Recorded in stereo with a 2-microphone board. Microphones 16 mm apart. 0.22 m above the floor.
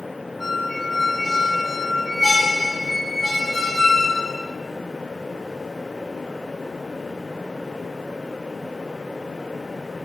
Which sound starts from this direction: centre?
A squeak, at 0.4 s.